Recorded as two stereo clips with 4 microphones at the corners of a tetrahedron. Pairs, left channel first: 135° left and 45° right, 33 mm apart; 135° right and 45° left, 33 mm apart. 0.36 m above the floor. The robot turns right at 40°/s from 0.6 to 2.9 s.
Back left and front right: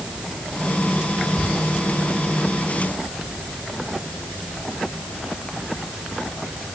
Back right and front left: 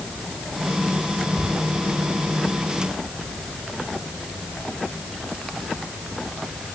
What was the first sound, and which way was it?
Only background noise.